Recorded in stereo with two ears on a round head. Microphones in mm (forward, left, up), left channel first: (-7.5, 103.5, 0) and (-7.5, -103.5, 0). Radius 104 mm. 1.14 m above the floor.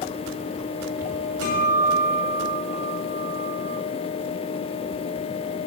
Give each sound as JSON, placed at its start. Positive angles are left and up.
{"t": 1.4, "sound": "a guitar", "side_deg": -70, "distance_m": 2.5}